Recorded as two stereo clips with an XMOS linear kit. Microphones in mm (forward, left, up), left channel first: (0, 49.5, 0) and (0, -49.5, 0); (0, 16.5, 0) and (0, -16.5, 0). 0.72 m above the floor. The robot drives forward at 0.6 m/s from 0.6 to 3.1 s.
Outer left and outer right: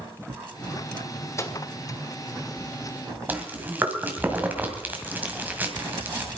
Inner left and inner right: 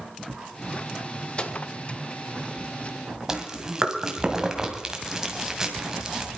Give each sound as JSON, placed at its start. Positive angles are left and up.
{"t": 1.4, "sound": "a microwave", "side_deg": 30, "distance_m": 1.4}
{"t": 3.3, "sound": "chewing", "side_deg": -15, "distance_m": 2.0}